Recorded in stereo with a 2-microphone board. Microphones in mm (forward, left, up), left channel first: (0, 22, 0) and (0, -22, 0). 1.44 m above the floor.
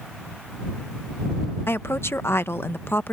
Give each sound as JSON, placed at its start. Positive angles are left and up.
{"t": 1.7, "sound": "a woman speaking", "side_deg": 65}